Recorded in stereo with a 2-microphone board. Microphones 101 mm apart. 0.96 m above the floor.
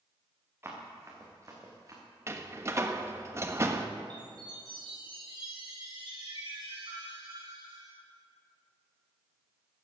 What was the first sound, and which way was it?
Running footsteps, 25° right (ahead or behind).